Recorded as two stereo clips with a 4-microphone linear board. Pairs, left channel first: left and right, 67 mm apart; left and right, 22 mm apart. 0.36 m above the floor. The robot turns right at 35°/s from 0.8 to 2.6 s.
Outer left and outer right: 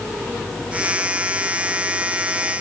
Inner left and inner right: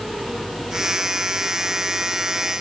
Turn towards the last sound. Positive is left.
No sound to turn to.